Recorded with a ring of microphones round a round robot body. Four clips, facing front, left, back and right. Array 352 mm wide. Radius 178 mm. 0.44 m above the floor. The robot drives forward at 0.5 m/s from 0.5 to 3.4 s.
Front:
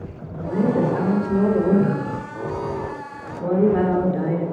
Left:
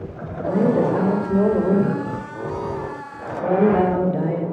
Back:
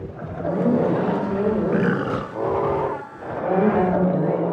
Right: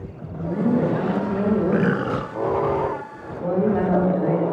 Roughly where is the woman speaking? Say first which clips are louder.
Left 3 dB, even; left.